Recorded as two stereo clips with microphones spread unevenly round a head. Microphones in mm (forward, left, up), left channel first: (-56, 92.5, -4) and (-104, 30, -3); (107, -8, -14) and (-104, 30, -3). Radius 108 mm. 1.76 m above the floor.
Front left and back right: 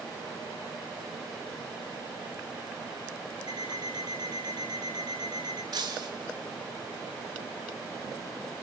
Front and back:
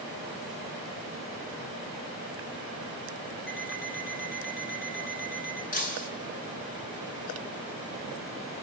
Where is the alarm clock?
60° right, 5 m.